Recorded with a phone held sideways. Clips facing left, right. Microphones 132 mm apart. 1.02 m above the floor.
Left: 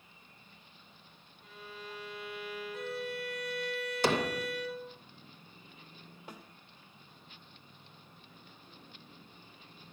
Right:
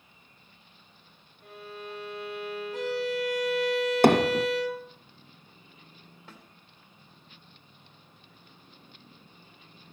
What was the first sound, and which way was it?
A violin, 60° right (ahead or behind).